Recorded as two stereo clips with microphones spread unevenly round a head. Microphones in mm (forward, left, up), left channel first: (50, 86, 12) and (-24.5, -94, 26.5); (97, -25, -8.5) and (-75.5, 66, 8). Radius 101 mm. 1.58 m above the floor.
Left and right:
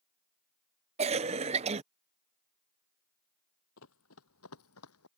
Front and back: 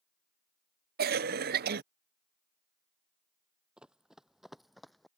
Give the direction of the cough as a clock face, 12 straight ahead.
6 o'clock.